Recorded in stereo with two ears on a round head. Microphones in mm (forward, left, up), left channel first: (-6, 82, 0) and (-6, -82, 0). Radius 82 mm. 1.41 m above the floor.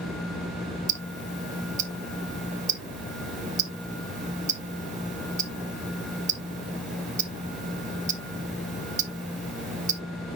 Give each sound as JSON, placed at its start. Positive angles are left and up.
{"t": 0.9, "sound": "ticking", "side_deg": -40, "distance_m": 0.9}